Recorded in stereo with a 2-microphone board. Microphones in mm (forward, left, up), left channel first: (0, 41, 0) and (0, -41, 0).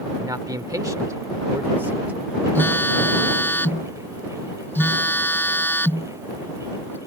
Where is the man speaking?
50° right (ahead or behind); by 2.5 s 15° right (ahead or behind).